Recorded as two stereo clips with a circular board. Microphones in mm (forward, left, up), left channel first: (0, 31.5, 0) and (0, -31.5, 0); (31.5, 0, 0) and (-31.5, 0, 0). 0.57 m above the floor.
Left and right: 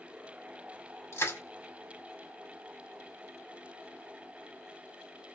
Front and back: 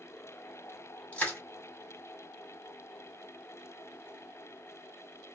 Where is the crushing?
65° left, 2 m.